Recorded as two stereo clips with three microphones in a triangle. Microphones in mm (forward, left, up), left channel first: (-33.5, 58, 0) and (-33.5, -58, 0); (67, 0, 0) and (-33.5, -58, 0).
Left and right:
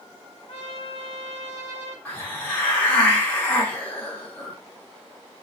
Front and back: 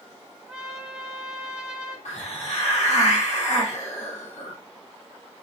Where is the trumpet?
125° left, 0.6 m.